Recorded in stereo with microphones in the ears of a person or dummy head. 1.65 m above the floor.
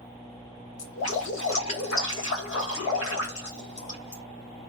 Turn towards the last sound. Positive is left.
turn(degrees=70)  # may be behind; listen again after turning